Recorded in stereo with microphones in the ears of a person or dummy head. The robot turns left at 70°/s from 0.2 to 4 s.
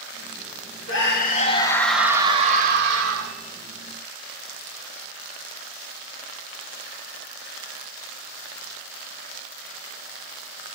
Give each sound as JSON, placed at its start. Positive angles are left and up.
{"t": 0.9, "sound": "a scream", "azimuth_deg": 75, "distance_m": 1.2}